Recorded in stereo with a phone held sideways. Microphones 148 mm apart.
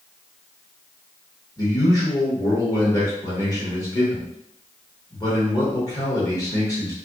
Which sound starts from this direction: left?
A man speaking, at 1.6 s.